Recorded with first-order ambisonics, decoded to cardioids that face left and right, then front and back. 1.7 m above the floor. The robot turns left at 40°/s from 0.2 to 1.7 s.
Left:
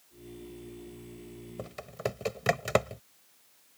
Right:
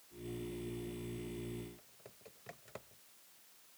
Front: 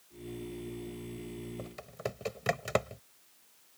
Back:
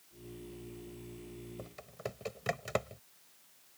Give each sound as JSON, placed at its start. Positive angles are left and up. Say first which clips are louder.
{"t": 1.6, "sound": "typing on a keyboard", "louder": "left 17 dB, front 3 dB", "azimuth_deg": 80}